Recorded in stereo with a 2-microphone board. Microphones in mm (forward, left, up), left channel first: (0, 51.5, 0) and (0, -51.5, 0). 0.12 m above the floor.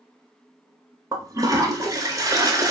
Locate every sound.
1.1 s a toilet flushing: 35° right (ahead or behind), 0.6 m